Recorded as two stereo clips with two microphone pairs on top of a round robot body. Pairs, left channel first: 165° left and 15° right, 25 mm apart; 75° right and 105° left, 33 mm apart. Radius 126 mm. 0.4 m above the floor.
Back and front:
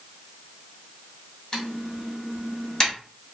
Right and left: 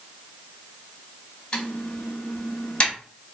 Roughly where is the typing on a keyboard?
Behind right.